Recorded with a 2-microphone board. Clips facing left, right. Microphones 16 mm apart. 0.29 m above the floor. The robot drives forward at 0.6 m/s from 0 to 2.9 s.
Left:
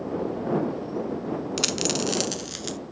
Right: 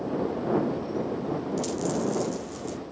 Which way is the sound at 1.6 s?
85° left.